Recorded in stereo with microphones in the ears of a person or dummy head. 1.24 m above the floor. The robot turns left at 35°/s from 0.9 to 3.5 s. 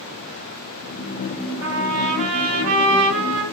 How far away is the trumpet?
About 1.3 m.